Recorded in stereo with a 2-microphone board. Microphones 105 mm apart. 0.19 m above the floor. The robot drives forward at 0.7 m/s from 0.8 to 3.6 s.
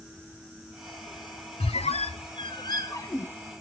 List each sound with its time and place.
1.6 s a squeak: 70° left (ahead or behind), 0.5 m; by 3.3 s 25° left (ahead or behind), 1.1 m